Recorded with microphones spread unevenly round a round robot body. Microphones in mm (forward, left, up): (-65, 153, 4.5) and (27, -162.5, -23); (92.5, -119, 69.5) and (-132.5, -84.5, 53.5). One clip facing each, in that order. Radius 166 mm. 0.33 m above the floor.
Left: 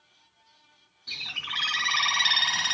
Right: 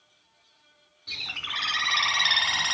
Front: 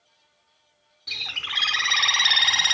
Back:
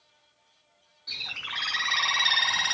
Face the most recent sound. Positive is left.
turn(degrees=25)